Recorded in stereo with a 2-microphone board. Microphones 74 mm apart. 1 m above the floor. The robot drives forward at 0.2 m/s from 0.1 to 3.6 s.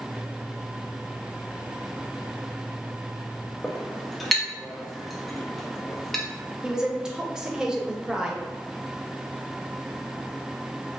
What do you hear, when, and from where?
3.6 s a clink: centre (ahead or behind), 0.5 m
6.6 s a woman speaking: 10° right (ahead or behind), 0.6 m